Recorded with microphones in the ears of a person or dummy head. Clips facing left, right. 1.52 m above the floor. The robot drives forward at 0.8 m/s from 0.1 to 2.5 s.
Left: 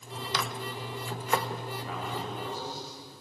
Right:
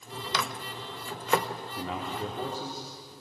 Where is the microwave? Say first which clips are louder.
Even; 60° right (ahead or behind), 1.0 m; by 1.5 s 50° right (ahead or behind), 1.1 m.